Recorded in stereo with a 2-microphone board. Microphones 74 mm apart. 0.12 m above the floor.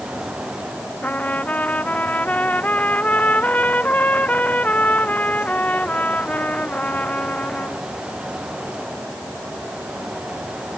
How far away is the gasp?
I don't hear a gasp.